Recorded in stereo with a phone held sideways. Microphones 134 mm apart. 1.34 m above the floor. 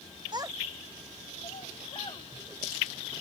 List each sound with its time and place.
0.3 s a child speaking: 35° right (ahead or behind); by 2.3 s 50° left (ahead or behind)